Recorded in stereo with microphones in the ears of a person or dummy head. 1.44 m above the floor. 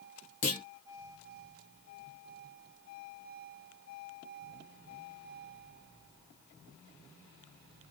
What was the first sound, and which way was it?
A clunk, 45° left (ahead or behind).